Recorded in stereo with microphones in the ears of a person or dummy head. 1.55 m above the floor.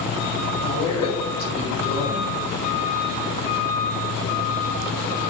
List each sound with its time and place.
0.6 s a man speaking: 75° left (ahead or behind), 1.8 m